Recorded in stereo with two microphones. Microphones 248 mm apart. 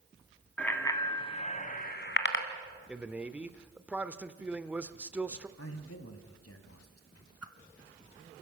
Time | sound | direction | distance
0.6 | a bicycle bell | 5° left (ahead or behind) | 2 m
2.9 | a man speaking | 5° right (ahead or behind) | 0.9 m
5.6 | a man speaking | 70° left (ahead or behind) | 2.5 m
7.4 | a whoosh | 75° left (ahead or behind) | 1.1 m